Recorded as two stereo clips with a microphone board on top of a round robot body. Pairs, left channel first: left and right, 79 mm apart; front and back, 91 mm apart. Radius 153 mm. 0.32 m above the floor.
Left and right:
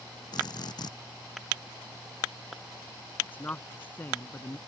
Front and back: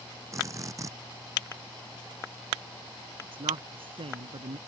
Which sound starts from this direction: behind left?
A drill, at 0.3 s.